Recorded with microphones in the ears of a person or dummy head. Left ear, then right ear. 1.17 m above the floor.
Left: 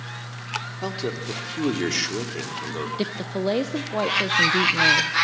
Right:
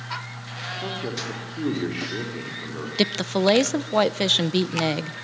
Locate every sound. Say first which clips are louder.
0.8 s a man speaking: left 1 dB; 80° left, 3 m
3.0 s a woman speaking: right 10 dB; 40° right (ahead or behind), 0.6 m